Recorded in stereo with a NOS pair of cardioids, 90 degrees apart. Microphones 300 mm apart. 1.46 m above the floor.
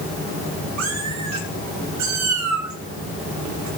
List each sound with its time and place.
0.8 s a cat meowing: 65° right, 7.5 m; by 3.7 s 75° right, 7.5 m